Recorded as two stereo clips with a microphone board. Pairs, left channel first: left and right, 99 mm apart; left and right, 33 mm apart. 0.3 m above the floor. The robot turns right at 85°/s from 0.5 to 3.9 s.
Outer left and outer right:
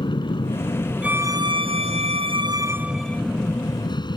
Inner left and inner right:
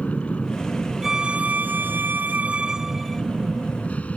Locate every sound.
0.0 s an aircraft: 125° left; by 4.2 s 50° left
1.0 s a violin: 170° right; by 3.2 s 20° left